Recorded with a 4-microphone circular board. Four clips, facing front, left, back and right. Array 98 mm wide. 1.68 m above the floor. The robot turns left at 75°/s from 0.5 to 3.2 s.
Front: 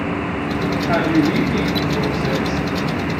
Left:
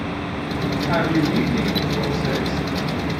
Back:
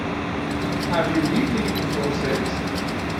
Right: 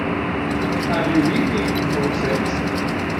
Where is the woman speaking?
Straight ahead, 4 m; by 2.6 s 135° right, 4 m.